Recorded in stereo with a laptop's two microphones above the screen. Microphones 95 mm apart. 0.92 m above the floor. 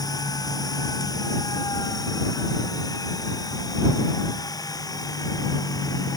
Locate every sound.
0.0 s a machine running: 35° left (ahead or behind)